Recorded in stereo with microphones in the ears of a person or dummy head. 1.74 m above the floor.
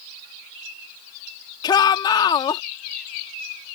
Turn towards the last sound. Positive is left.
turn(degrees=30)  # may be behind; listen again after turning